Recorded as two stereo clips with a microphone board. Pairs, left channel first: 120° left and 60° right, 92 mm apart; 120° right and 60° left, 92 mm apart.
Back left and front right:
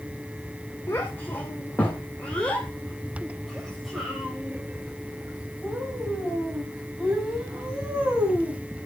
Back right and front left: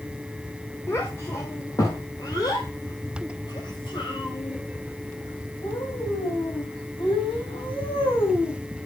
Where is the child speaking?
Straight behind, 2 m; by 8.6 s 130° right, 6 m.